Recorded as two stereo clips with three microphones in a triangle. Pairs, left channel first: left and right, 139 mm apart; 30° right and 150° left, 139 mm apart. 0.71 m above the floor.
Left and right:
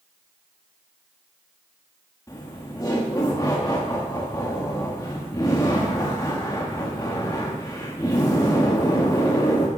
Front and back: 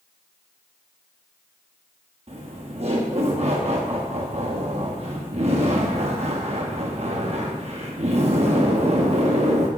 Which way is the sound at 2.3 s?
145° left.